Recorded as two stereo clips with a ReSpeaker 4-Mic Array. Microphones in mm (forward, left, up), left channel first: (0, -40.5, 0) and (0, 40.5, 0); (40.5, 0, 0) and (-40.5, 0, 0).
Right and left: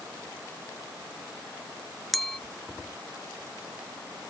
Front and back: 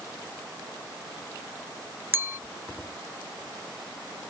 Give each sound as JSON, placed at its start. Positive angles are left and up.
{"t": 2.1, "sound": "a clink", "azimuth_deg": -175}